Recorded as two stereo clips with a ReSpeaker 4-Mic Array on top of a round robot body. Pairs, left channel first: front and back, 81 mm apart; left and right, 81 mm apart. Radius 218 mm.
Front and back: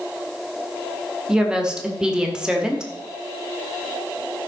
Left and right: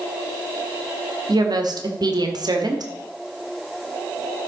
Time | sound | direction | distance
1.3 | a woman speaking | 100° right | 1.7 m